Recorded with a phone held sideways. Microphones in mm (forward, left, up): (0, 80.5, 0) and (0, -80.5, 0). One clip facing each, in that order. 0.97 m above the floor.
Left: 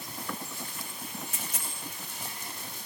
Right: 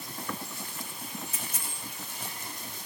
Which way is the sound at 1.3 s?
85° left.